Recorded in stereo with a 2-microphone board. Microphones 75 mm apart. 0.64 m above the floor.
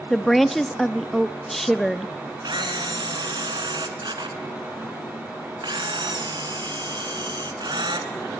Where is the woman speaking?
5° left (ahead or behind), 0.6 m.